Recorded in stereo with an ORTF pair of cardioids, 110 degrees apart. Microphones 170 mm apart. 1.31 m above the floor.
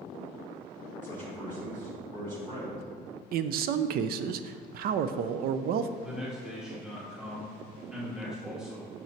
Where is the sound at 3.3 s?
65° right, 0.5 m.